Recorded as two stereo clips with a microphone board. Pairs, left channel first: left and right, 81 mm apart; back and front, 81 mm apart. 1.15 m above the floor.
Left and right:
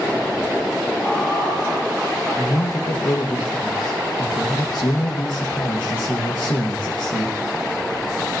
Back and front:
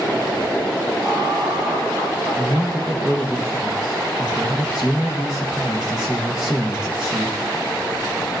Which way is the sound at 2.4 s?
80° left.